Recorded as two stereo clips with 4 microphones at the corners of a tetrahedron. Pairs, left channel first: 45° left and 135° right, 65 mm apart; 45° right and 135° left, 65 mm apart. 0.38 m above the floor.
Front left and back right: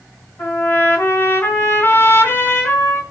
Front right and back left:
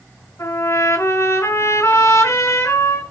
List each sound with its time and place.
0.4 s a trumpet: straight ahead, 4 m